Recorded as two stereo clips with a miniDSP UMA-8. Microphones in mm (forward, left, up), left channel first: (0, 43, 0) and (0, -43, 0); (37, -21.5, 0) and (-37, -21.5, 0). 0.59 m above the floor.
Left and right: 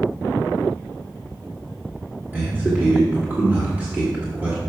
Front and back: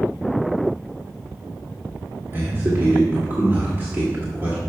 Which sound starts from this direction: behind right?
A man speaking, at 2.3 s.